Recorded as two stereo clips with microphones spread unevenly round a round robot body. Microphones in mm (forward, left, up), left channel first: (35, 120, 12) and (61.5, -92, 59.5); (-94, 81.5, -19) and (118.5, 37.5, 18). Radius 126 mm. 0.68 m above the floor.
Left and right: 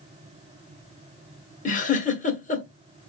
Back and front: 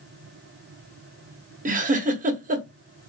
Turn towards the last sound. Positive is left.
turn(degrees=45)